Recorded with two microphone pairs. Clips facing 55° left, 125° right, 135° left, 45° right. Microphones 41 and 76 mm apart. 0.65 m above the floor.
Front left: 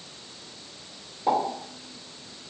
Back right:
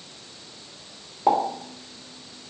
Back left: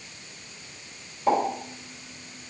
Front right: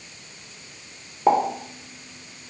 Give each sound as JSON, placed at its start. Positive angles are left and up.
{"t": 1.3, "sound": "a pop", "azimuth_deg": -75, "distance_m": 2.5}